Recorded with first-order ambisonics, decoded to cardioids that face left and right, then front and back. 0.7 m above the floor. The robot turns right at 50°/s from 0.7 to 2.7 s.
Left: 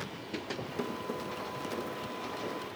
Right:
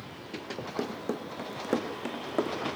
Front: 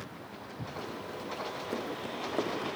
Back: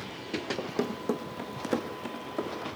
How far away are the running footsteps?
About 1.6 m.